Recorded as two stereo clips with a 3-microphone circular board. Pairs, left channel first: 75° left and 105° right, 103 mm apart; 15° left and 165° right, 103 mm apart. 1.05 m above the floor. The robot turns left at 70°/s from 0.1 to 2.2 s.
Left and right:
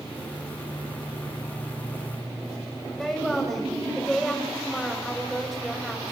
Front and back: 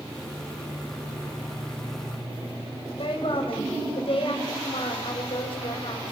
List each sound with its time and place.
3.0 s a woman speaking: 15° right, 6.5 m